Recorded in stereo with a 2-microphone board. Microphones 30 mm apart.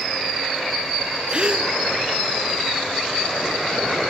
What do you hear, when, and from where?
1.3 s a gasp: 35° right (ahead or behind), 1.3 m